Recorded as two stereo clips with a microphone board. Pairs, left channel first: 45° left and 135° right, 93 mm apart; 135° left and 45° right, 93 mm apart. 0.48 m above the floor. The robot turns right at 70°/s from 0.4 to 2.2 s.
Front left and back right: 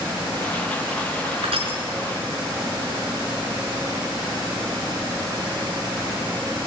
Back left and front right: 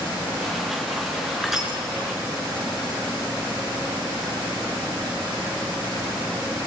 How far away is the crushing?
About 4.5 m.